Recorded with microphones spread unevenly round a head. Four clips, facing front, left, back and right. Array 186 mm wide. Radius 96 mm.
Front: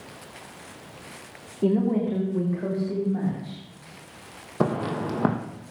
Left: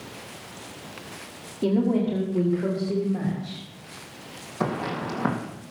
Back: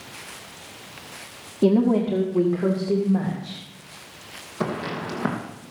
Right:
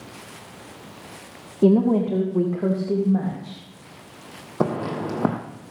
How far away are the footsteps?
About 2.5 m.